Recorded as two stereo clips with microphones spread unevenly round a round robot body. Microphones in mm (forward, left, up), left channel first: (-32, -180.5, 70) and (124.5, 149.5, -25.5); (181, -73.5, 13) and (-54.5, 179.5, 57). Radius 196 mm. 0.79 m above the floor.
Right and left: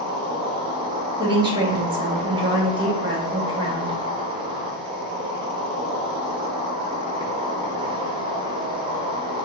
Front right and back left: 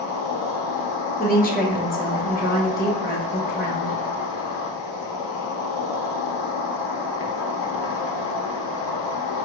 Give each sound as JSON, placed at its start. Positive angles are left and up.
{"t": 0.0, "sound": "an insect", "azimuth_deg": -15, "distance_m": 1.1}
{"t": 1.2, "sound": "a woman speaking", "azimuth_deg": 5, "distance_m": 1.5}